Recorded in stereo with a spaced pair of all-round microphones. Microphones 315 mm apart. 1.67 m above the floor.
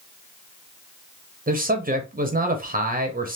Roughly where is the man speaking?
Right.